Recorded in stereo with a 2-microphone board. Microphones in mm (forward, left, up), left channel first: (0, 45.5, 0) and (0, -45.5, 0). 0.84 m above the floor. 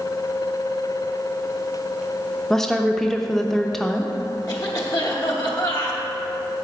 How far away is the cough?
About 1.0 m.